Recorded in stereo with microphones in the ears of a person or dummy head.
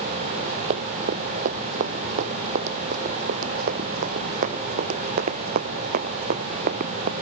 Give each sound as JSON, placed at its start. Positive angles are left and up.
{"t": 0.7, "sound": "running footsteps", "side_deg": -35}